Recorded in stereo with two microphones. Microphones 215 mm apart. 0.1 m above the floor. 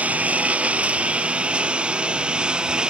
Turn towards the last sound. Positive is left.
turn(degrees=-5)  # may be behind; listen again after turning